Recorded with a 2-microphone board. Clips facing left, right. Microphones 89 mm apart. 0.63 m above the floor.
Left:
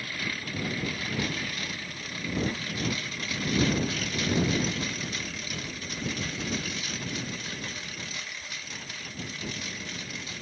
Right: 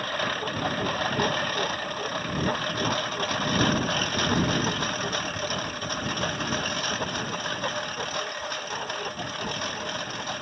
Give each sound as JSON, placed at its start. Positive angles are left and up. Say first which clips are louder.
{"t": 0.0, "sound": "a lawn mower", "louder": "right 8 dB", "side_deg": -50}